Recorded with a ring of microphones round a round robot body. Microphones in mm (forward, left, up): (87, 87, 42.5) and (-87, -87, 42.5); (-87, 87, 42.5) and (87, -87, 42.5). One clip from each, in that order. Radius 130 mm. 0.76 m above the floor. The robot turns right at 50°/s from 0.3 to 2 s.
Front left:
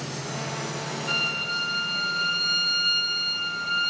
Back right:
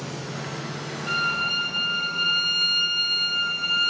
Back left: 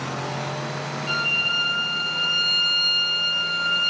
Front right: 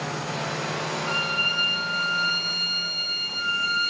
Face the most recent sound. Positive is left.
turn(degrees=-95)